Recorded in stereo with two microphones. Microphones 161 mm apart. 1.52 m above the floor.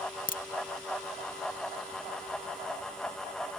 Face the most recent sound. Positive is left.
turn(degrees=60)  # may be behind; listen again after turning